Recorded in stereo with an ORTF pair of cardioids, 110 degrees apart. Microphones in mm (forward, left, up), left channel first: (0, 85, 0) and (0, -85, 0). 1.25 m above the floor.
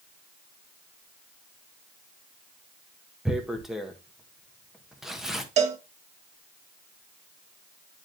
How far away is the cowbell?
About 1.0 m.